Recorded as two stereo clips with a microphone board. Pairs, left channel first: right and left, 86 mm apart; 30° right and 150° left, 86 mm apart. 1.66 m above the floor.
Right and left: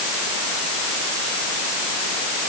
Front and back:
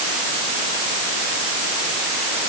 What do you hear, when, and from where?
Only background noise.